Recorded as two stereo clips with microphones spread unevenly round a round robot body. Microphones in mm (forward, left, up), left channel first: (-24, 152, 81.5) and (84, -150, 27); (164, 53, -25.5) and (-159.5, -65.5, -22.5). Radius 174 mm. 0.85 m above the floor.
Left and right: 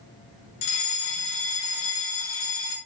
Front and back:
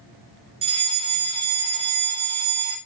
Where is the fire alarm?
125° left, 5.5 m.